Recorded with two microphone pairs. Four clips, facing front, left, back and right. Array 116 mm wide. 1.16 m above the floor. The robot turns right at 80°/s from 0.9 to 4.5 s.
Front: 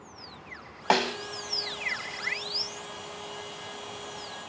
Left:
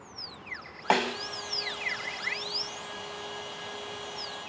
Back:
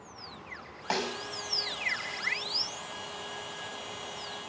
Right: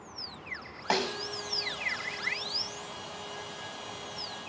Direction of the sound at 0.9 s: 35° left.